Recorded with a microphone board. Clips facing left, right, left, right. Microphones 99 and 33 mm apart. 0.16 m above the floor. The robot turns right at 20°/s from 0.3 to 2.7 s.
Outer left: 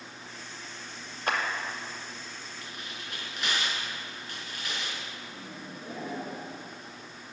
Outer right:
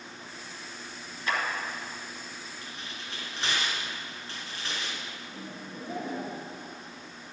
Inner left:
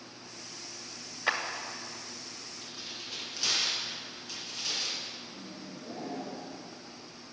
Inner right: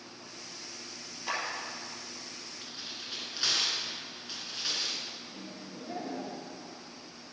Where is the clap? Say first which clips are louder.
Outer left 1 dB, inner left 4 dB; 55° left (ahead or behind), 1.7 m.